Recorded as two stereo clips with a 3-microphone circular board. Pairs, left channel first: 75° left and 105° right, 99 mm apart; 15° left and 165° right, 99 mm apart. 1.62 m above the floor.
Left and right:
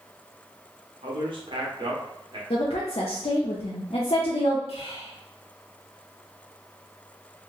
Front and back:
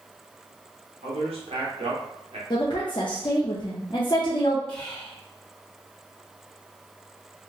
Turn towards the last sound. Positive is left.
turn(degrees=95)